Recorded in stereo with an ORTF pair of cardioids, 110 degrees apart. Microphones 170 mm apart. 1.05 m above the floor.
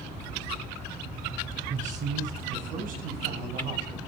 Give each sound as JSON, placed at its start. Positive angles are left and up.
{"t": 1.7, "sound": "a man speaking", "azimuth_deg": -45, "distance_m": 7.0}